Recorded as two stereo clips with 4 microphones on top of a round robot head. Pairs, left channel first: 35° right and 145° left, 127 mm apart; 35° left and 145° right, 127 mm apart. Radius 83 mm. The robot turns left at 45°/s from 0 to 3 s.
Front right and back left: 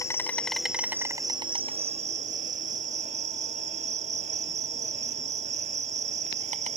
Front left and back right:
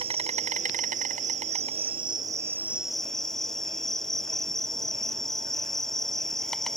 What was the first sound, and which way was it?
An insect, 100° right.